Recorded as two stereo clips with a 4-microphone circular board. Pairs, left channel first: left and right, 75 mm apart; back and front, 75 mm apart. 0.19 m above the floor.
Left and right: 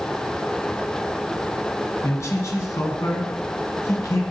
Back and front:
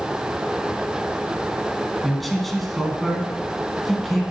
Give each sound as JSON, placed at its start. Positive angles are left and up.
{"t": 2.0, "sound": "a man speaking", "azimuth_deg": 90, "distance_m": 1.8}